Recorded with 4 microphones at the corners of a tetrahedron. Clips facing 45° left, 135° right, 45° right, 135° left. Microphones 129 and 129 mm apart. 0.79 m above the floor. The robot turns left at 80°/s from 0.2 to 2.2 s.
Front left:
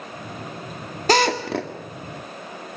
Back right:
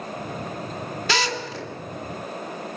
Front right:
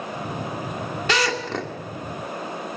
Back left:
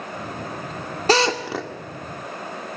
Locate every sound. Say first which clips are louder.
1.1 s a drill: front left 9 dB, back left 6 dB; 90° left, 2 m; by 1.7 s 40° left, 2 m